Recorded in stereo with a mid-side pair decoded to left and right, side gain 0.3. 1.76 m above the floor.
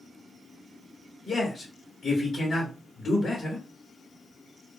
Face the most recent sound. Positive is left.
turn(degrees=60)